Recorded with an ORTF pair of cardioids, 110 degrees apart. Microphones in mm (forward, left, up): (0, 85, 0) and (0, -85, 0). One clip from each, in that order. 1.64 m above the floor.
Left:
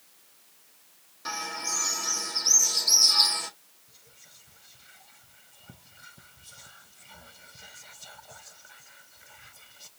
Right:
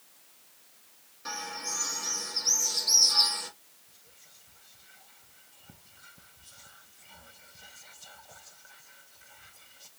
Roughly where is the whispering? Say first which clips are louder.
Left 4 dB; ahead.